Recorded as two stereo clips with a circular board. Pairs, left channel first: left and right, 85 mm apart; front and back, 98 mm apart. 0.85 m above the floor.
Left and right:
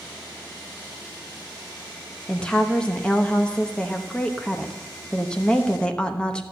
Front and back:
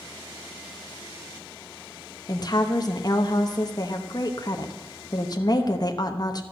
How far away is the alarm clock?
I don't hear an alarm clock.